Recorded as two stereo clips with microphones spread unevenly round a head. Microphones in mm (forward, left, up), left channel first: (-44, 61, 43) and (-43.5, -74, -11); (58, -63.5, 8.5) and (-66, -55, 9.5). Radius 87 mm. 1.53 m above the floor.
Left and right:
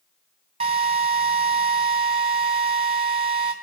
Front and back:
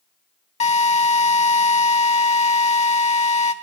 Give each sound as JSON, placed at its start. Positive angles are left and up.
{"t": 0.6, "sound": "a drill", "azimuth_deg": -35, "distance_m": 1.2}